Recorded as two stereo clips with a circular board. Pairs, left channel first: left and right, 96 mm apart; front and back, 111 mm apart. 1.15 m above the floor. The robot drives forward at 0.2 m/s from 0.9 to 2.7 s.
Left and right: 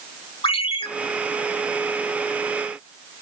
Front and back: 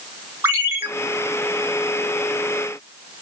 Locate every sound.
0.4 s a ringtone: 110° left, 2.5 m